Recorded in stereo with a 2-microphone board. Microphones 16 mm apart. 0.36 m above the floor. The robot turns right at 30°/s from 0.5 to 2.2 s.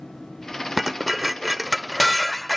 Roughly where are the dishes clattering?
Centre.